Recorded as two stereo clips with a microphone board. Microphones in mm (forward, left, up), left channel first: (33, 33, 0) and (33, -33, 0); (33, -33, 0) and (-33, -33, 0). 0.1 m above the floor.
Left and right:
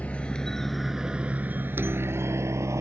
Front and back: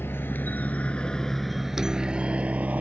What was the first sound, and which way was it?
A helicopter, 30° left.